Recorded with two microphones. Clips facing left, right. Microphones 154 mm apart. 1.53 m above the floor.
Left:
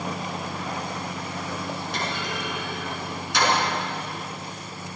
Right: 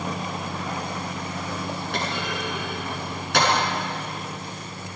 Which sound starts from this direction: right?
A clunk, at 1.9 s.